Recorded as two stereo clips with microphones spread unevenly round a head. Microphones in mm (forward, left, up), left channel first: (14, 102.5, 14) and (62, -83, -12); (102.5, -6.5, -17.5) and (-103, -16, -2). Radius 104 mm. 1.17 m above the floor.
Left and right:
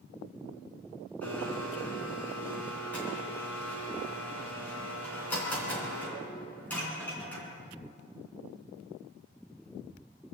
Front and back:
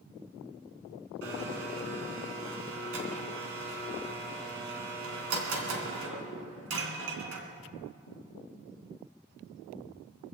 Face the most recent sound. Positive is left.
turn(degrees=-175)